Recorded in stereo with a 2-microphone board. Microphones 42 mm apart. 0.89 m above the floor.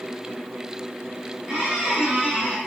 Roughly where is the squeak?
Right.